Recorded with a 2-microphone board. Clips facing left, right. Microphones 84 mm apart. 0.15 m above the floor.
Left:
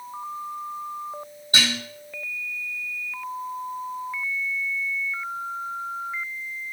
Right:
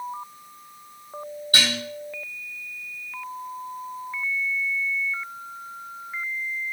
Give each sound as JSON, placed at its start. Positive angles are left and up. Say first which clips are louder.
{"t": 1.5, "sound": "dishes clattering", "louder": "even", "side_deg": 20, "distance_m": 4.0}